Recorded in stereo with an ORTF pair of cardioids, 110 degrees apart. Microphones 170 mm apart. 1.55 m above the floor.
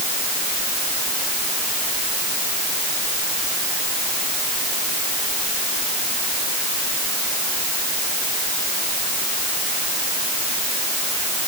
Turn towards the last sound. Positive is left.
No sound to turn to.